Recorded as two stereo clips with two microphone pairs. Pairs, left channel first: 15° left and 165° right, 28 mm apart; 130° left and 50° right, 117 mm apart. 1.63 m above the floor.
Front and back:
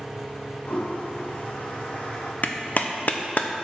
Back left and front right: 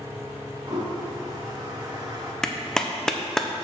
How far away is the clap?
About 0.7 m.